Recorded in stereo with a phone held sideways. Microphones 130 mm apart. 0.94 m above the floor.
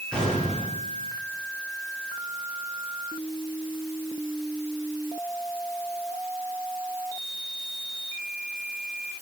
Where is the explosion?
5° left (ahead or behind), 9 m.